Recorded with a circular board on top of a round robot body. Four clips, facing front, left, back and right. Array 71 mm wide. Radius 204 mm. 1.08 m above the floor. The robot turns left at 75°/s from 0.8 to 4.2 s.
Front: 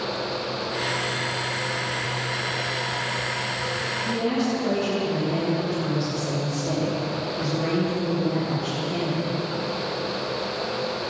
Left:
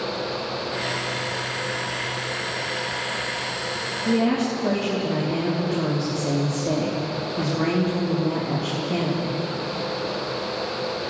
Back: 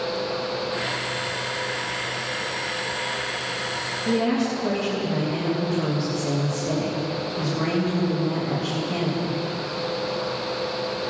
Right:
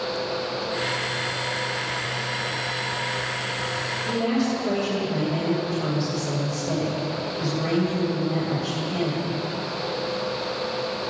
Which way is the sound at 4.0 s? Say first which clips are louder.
Left 3 dB, back 3 dB; 115° left.